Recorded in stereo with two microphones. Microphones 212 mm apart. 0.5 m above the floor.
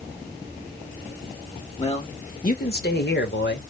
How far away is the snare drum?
I don't hear a snare drum.